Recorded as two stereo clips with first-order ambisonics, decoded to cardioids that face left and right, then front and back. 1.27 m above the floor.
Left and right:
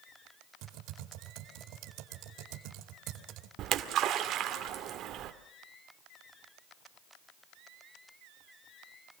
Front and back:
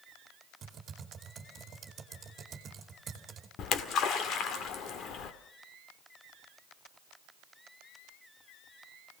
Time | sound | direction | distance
0.6 | typing on a keyboard | 115° right | 2.5 m
3.6 | a splash | 45° right | 1.8 m